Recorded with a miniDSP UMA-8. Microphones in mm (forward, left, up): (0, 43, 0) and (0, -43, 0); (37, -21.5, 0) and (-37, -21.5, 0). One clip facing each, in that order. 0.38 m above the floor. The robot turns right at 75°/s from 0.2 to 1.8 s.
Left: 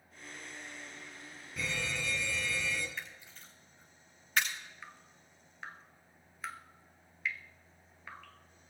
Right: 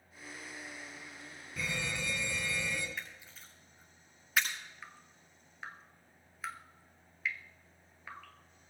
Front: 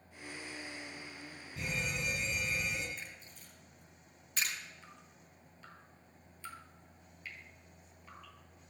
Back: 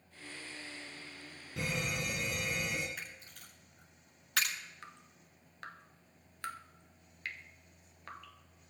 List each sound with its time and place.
1.6 s a fire alarm: straight behind, 6 m; by 2.9 s 165° right, 6 m
3.0 s a camera shutter: straight behind, 8 m
4.8 s dripping: straight behind, 1.1 m